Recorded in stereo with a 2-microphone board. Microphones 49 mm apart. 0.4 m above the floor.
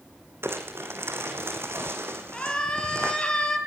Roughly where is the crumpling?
Right.